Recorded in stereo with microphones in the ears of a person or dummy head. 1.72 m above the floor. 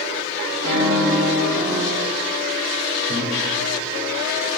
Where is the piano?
10° right (ahead or behind), 4 m.